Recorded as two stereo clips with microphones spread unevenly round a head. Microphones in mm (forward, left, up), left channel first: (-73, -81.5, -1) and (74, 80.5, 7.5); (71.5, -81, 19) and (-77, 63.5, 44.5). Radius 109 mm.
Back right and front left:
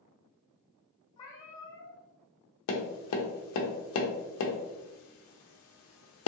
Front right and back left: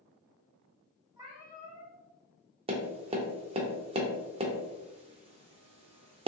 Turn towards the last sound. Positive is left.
turn(degrees=-160)